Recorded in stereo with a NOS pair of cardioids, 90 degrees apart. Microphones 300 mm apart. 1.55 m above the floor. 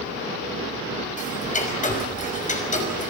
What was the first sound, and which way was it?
Ticking, 25° left.